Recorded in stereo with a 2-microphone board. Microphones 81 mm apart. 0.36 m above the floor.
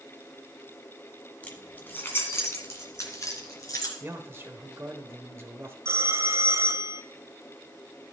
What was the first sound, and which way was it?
Keys jangling, 15° left (ahead or behind).